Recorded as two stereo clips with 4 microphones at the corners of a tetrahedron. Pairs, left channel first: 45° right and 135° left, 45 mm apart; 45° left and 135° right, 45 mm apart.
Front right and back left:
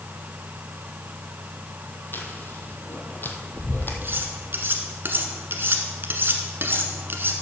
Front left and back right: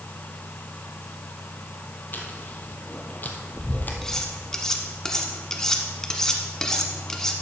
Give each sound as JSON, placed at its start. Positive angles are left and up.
{"t": 2.1, "sound": "chewing", "azimuth_deg": -5, "distance_m": 1.3}
{"t": 4.0, "sound": "cutlery clinking", "azimuth_deg": 120, "distance_m": 1.3}